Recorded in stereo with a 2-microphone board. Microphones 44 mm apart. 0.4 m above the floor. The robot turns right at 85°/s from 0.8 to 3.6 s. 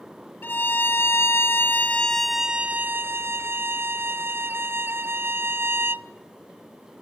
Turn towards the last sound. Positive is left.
turn(degrees=-70)